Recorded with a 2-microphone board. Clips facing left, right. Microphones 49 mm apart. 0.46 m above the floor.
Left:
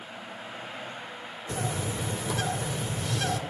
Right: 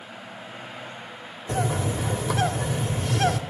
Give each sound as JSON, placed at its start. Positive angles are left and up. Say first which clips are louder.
{"t": 1.5, "sound": "a bird", "louder": "right 6 dB", "side_deg": -45, "distance_m": 1.3}